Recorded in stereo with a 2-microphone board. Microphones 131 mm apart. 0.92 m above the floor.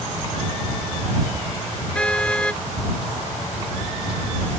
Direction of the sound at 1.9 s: 10° left (ahead or behind).